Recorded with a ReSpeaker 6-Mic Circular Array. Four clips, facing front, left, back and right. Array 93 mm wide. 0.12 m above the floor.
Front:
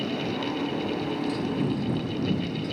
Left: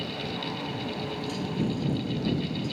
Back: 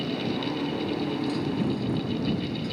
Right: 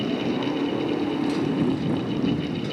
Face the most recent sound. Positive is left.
turn(degrees=-95)